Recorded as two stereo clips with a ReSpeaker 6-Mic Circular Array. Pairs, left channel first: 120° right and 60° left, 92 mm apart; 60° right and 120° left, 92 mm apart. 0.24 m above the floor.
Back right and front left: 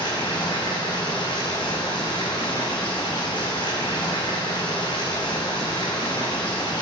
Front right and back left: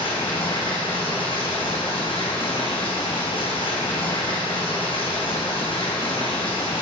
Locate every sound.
0.0 s running water: 80° right, 1.9 m